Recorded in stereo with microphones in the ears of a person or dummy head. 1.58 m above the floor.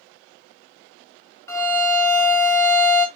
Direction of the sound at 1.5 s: 15° left (ahead or behind).